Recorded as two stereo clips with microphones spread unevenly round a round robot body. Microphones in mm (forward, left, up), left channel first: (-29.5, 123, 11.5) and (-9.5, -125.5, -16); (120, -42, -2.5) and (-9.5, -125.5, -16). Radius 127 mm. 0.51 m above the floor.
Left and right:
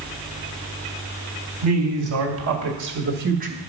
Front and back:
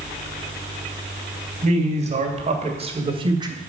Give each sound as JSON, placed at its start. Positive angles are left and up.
{"t": 1.6, "sound": "a woman speaking", "azimuth_deg": -110, "distance_m": 3.0}